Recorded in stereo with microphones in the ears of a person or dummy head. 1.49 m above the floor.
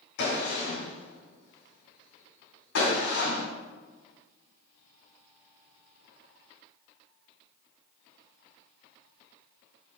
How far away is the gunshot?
About 3 m.